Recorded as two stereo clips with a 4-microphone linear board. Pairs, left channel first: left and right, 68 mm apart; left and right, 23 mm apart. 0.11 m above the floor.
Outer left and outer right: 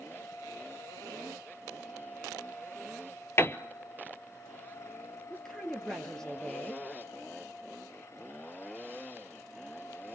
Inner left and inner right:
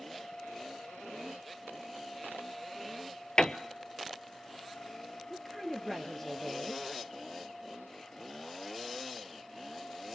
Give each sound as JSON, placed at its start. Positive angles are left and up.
{"t": 3.4, "sound": "a piano", "side_deg": 35, "distance_m": 0.6}
{"t": 5.3, "sound": "a woman speaking", "side_deg": 10, "distance_m": 2.0}